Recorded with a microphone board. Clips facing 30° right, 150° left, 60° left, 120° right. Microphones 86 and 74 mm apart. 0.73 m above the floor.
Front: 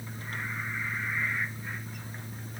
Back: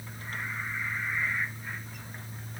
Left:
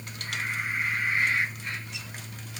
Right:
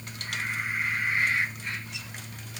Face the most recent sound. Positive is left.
No sound to turn to.